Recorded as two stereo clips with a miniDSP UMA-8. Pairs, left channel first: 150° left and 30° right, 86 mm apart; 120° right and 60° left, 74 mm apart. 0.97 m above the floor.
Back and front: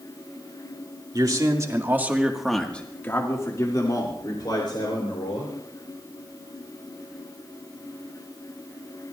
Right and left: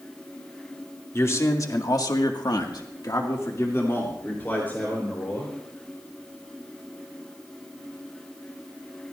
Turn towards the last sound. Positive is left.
turn(degrees=170)